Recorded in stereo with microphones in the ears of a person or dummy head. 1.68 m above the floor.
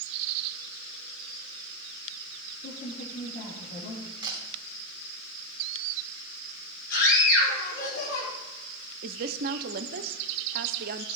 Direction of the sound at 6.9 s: 65° left (ahead or behind).